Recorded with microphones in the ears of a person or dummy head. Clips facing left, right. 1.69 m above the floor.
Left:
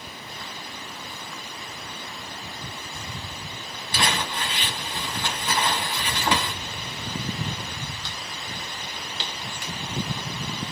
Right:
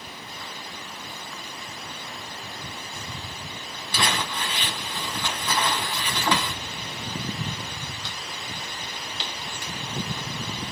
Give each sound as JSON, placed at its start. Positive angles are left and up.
{"t": 3.9, "sound": "crumpling", "side_deg": 15, "distance_m": 1.8}